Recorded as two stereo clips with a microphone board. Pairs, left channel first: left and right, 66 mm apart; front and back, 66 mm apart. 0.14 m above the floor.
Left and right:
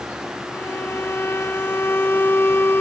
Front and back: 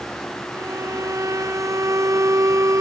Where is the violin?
145° left.